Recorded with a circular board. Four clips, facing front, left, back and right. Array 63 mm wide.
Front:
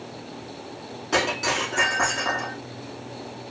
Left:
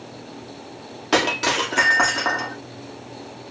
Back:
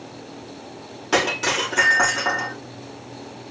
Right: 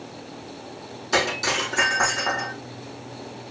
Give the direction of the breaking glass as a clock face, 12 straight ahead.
8 o'clock.